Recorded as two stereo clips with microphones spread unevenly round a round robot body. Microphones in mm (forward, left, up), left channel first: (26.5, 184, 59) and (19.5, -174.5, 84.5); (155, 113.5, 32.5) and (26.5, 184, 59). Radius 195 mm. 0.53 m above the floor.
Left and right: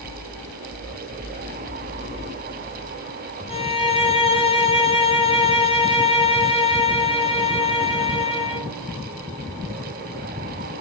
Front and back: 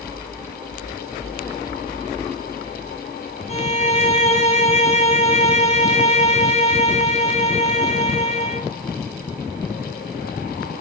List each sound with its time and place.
3.5 s a violin: 15° left, 2 m